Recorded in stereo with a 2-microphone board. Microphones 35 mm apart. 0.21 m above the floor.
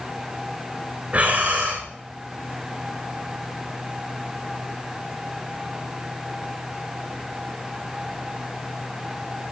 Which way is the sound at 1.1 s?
40° right (ahead or behind).